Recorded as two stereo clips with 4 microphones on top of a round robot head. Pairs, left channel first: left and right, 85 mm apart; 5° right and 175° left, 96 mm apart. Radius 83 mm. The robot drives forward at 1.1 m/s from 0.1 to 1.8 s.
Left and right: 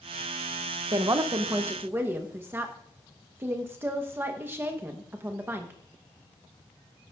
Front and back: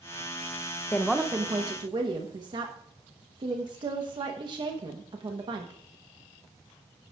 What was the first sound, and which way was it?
A woman speaking, 65° right.